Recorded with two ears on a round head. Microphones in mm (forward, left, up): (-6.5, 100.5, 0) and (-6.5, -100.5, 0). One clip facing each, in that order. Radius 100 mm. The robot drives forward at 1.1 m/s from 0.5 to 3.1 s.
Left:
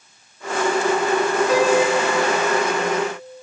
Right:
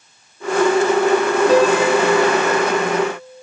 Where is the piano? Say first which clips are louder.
Right 3 dB; 30° right (ahead or behind), 3 m; by 2.6 s 20° right (ahead or behind), 4 m.